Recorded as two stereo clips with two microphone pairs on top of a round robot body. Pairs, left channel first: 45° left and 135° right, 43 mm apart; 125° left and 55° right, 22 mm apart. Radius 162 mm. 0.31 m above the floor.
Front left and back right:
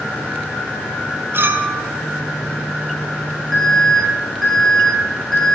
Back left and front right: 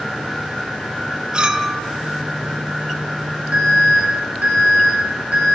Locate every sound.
1.3 s a clink: 105° right, 1.6 m
3.5 s an alarm: 40° right, 7.5 m